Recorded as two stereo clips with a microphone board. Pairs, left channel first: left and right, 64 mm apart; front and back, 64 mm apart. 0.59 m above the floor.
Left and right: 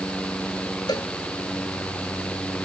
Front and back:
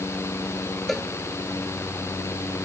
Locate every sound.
0.9 s a cowbell: 85° left